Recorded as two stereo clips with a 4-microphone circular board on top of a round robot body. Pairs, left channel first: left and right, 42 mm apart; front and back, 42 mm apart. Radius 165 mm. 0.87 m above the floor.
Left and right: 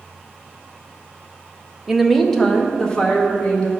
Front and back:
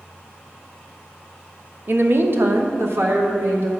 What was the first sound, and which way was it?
A woman speaking, 165° right.